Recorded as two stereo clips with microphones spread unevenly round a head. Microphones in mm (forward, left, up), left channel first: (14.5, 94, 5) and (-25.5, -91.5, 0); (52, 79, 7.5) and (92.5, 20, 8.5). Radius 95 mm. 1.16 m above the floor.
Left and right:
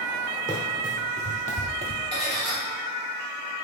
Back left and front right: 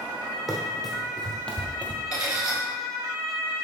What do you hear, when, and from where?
0.5 s running footsteps: 30° left, 2 m; by 2.0 s 80° left, 1.3 m
2.1 s cutlery clinking: 20° left, 3 m